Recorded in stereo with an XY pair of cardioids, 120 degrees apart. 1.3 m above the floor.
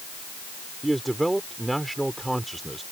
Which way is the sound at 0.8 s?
10° right.